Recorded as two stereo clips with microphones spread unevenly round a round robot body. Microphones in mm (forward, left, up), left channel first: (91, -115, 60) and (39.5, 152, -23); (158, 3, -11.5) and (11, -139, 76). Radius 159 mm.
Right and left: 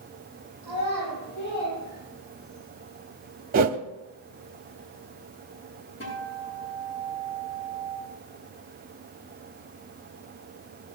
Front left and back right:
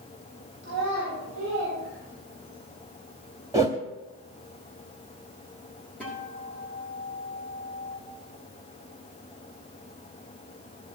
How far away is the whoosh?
About 0.7 m.